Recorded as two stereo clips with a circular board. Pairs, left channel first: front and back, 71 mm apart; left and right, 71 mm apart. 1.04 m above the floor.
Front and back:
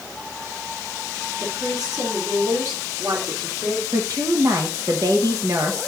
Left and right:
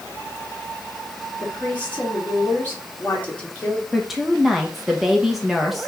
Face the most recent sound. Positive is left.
turn(degrees=-175)